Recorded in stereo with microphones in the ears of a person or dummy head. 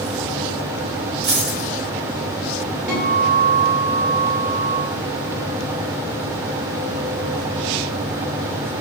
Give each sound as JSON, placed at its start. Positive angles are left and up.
{"t": 1.2, "sound": "a dropped coin", "side_deg": -45, "distance_m": 1.1}
{"t": 2.9, "sound": "a guitar", "side_deg": -5, "distance_m": 0.8}